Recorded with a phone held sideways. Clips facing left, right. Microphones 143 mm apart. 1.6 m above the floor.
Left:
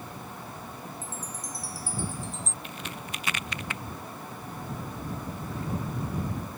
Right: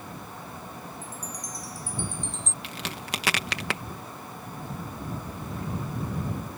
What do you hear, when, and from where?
1.0 s a chime: 5° left (ahead or behind)
2.6 s a crack: 85° right